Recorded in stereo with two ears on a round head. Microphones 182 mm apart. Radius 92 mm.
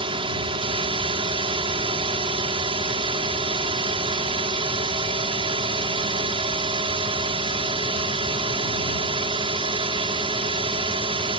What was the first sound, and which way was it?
A drone, 25° right (ahead or behind).